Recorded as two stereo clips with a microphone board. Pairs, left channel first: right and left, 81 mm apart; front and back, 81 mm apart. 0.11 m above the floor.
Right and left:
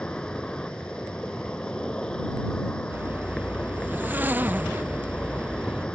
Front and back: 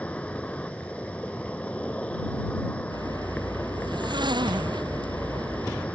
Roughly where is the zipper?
Behind left.